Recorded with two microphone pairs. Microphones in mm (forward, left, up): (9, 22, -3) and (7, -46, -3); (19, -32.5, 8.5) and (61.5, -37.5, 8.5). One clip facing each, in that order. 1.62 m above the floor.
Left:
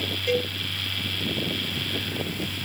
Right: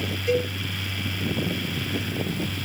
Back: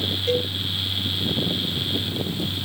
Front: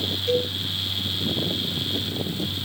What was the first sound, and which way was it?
A cowbell, 130° left.